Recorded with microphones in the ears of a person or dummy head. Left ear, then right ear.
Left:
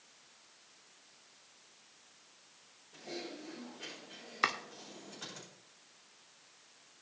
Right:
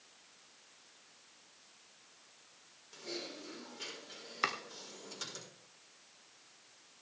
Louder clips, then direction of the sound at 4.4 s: Left 3 dB; 10° left (ahead or behind).